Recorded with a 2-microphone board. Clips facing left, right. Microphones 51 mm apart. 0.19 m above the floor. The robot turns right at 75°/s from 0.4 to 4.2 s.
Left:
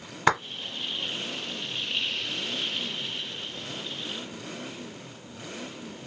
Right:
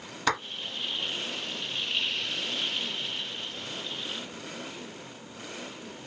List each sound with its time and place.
0.3 s a clap: 25° left (ahead or behind), 1.4 m